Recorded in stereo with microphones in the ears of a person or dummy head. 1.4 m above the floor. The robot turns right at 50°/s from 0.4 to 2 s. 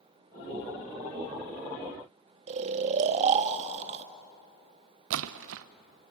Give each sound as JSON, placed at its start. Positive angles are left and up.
{"t": 2.5, "sound": "snoring", "side_deg": -30, "distance_m": 1.1}
{"t": 5.1, "sound": "a splash", "side_deg": -65, "distance_m": 0.8}